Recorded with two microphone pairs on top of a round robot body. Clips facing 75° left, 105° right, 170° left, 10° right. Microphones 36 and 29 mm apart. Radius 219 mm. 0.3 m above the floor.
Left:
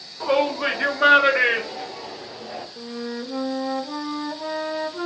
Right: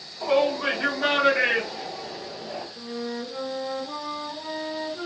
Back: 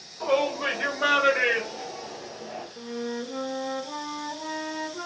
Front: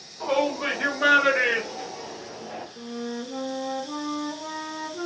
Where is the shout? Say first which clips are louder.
Left 1 dB, even; 85° left, 2.5 m; by 2.7 s 45° left, 1.9 m.